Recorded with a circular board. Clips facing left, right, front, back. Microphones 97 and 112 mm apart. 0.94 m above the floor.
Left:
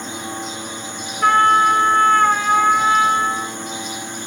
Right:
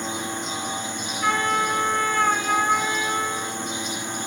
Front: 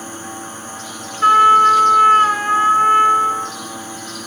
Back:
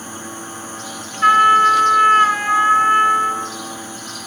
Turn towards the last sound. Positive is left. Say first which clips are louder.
# left 9 dB, front 2 dB
turn(degrees=55)